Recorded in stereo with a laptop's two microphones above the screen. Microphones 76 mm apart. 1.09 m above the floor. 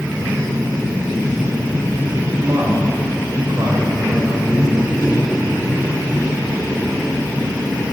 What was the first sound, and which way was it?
A man speaking, 50° right (ahead or behind).